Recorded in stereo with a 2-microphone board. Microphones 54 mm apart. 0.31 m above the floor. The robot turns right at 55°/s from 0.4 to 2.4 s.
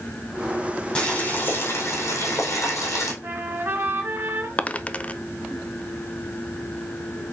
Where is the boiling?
20° left, 4 m; by 3.1 s 100° left, 4 m.